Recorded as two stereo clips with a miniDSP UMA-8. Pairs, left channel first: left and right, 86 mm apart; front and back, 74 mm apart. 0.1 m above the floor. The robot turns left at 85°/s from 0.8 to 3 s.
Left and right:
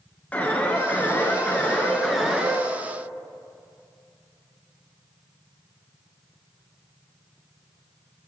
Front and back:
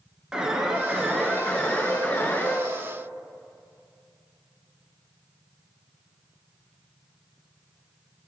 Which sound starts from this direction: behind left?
An alarm, at 0.3 s.